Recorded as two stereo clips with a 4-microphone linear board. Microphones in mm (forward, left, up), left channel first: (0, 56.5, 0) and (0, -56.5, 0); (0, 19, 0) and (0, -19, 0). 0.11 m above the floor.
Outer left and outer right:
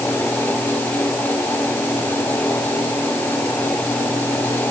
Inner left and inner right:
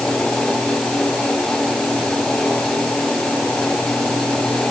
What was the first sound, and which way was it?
Only background noise.